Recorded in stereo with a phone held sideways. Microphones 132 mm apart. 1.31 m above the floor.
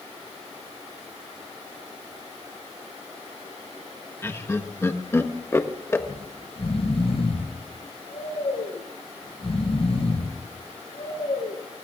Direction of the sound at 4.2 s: 20° left (ahead or behind).